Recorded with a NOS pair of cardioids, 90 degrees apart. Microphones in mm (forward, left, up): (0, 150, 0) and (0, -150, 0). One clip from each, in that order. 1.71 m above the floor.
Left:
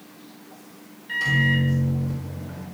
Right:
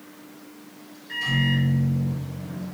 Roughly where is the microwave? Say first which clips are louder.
Left 4 dB; ahead left.